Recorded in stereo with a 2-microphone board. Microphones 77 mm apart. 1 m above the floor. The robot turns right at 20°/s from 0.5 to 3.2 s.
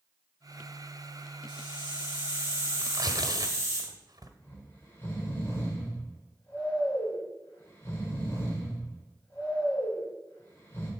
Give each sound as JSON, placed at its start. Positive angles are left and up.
{"t": 1.5, "sound": "a hiss", "azimuth_deg": 105, "distance_m": 5.0}
{"t": 2.8, "sound": "tearing paper", "side_deg": -55, "distance_m": 1.1}
{"t": 4.4, "sound": "snoring", "side_deg": 30, "distance_m": 4.0}